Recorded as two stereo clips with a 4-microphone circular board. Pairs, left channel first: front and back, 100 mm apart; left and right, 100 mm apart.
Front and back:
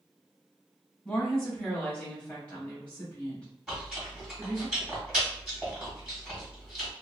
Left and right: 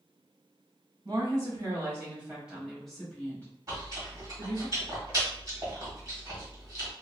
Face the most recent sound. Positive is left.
turn(degrees=-95)